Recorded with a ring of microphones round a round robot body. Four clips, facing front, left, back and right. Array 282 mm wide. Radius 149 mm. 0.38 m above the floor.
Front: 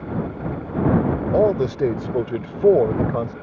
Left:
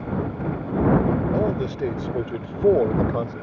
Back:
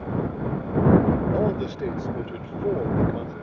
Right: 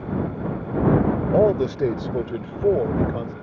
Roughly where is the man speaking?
Ahead right.